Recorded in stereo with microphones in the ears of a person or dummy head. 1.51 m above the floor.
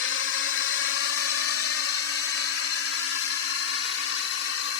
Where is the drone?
65° left (ahead or behind); by 4.8 s 75° left (ahead or behind).